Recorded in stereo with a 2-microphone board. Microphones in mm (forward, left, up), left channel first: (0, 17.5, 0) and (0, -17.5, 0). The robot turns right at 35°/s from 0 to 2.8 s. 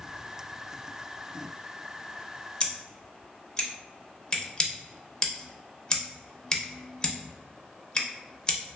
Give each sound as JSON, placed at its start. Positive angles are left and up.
{"t": 2.6, "sound": "scissors", "side_deg": 25, "distance_m": 0.6}